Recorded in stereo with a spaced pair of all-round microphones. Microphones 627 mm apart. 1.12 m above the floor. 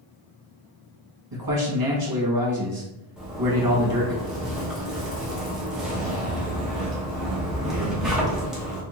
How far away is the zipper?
About 0.8 m.